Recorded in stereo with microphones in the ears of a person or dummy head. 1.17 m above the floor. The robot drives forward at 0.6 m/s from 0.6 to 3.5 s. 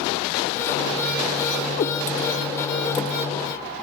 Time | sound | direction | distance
1.8 | a cat meowing | 30° left (ahead or behind) | 0.9 m